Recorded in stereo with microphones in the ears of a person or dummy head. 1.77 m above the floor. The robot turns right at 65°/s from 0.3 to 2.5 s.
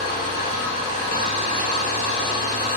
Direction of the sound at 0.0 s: 160° right.